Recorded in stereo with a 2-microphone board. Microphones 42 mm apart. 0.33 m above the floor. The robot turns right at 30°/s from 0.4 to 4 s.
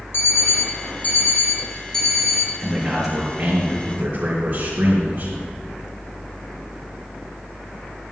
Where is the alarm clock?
115° left, 2 m; by 2.5 s straight behind, 2 m.